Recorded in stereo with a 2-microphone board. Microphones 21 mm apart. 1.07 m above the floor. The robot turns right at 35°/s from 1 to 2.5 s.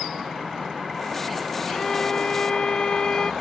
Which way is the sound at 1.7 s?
20° left (ahead or behind).